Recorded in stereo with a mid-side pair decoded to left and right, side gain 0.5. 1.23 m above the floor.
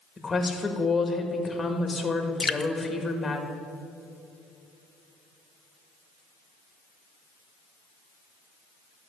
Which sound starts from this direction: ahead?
A woman speaking, at 0.2 s.